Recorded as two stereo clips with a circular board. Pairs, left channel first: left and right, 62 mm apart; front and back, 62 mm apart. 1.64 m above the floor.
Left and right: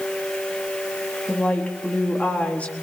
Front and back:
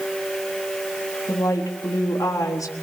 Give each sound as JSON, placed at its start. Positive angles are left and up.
{"t": 1.3, "sound": "a woman speaking", "azimuth_deg": 25, "distance_m": 4.0}